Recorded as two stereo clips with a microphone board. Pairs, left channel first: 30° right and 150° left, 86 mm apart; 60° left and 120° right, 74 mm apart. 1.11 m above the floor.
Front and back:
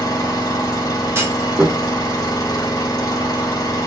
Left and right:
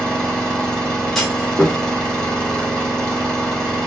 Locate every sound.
0.0 s an engine running: 15° right, 1.1 m
1.1 s a clunk: 145° left, 0.7 m